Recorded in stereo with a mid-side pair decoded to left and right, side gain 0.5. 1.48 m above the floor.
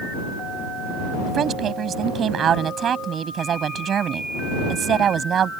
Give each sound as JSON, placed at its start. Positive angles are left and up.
{"t": 1.3, "sound": "a woman speaking", "azimuth_deg": -50}